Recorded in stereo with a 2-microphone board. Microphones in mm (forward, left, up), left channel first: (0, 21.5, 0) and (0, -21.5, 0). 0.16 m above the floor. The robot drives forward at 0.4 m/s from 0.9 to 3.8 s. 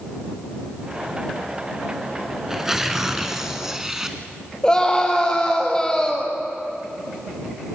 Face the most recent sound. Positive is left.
turn(degrees=20)  # may be behind; listen again after turning